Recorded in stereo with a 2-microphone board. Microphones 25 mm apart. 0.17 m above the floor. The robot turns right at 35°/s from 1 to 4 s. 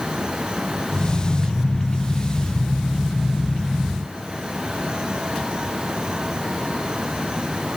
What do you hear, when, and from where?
Only background noise.